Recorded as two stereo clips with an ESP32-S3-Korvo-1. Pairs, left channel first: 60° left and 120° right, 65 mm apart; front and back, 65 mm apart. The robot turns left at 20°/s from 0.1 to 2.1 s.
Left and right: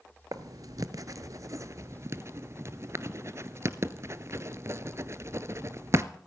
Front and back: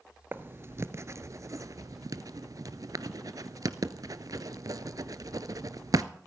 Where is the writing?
130° right, 0.6 m; by 6.0 s 165° right, 0.6 m.